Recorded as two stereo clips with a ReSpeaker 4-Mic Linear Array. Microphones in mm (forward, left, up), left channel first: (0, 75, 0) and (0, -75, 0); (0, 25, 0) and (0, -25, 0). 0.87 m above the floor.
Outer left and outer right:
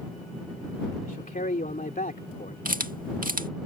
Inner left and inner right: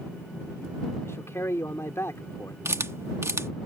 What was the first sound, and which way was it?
A man speaking, 70° left (ahead or behind).